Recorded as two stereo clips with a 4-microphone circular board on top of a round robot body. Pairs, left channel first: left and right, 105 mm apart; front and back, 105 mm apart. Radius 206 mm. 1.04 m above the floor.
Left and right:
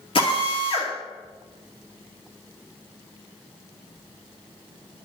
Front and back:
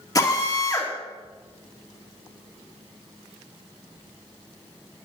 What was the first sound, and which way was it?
A drill, 55° left.